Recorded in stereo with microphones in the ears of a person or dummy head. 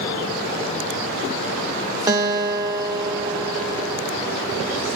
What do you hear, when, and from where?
2.1 s a guitar: 15° right (ahead or behind), 0.6 m